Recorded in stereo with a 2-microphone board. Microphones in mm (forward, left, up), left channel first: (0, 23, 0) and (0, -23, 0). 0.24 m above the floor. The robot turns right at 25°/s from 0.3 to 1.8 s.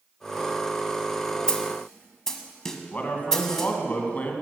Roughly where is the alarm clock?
I don't hear an alarm clock.